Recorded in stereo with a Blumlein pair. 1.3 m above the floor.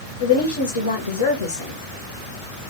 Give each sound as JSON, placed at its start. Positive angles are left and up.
{"t": 0.2, "sound": "a woman speaking", "azimuth_deg": 65, "distance_m": 1.5}